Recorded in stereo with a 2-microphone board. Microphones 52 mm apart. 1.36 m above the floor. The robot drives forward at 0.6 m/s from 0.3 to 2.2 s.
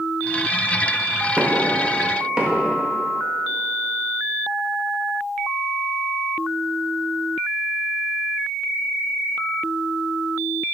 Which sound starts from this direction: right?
Knocking, at 1.4 s.